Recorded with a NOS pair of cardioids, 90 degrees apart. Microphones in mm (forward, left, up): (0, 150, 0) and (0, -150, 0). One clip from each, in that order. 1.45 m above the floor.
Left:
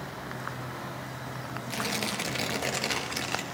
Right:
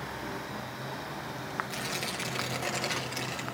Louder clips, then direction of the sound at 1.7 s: Left 3 dB; 25° left.